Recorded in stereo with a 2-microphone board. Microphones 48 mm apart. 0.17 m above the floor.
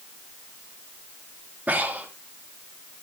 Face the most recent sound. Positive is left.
turn(degrees=-35)  # may be behind; listen again after turning